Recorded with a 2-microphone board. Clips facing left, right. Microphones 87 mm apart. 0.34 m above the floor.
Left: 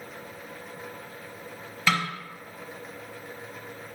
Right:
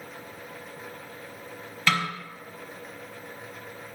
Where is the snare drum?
5° left (ahead or behind), 0.9 m.